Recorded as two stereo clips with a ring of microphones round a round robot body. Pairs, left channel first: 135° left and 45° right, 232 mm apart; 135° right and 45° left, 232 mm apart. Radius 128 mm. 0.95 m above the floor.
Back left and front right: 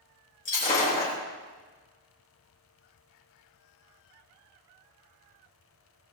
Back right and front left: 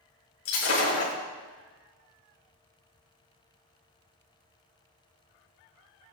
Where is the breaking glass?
165° right, 6 m.